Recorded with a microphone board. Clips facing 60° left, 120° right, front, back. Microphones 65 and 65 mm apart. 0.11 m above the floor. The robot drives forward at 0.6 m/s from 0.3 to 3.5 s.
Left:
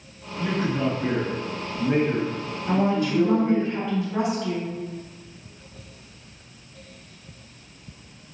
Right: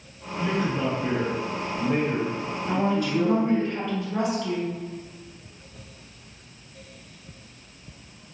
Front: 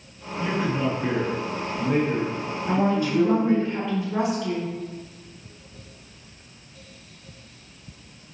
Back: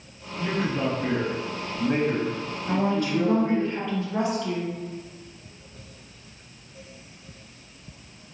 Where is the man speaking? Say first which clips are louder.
Left 1 dB, front 1 dB; 55° left, 1.9 m; by 3.7 s 140° left, 2 m.